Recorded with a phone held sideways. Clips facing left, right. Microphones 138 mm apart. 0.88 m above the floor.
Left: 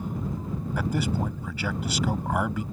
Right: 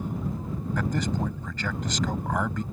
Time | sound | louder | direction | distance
0.8 | a man speaking | left 1 dB | 10° left (ahead or behind) | ?